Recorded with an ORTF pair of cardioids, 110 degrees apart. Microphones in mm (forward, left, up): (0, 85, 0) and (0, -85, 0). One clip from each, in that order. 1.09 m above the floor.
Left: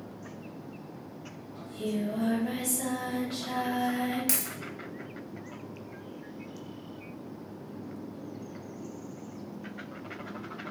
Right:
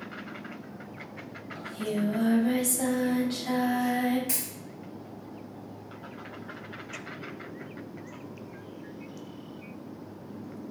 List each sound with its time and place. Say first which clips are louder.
1.6 s singing: right 2 dB; 55° right, 0.9 m
4.3 s a dropped coin: left 2 dB; 65° left, 1.2 m